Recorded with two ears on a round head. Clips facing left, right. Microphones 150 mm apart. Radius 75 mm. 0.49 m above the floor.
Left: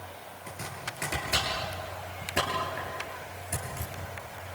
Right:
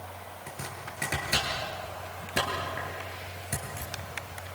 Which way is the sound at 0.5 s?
40° right (ahead or behind).